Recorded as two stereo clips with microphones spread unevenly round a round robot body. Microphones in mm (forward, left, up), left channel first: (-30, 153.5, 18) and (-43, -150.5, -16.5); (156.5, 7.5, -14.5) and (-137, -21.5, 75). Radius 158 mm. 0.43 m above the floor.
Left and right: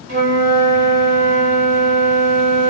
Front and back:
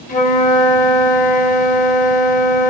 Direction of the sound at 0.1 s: 35° right.